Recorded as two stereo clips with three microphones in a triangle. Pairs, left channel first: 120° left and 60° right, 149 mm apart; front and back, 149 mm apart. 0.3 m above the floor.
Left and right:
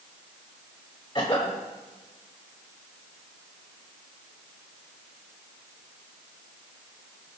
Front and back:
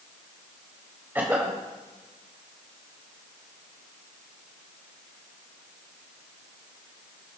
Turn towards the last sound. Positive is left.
turn(degrees=115)